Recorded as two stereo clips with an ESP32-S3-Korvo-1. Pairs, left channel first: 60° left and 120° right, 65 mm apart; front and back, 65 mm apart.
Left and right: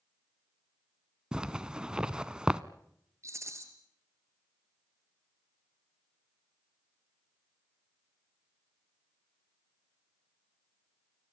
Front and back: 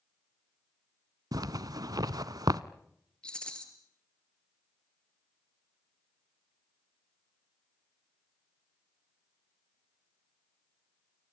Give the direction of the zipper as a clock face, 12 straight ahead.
7 o'clock.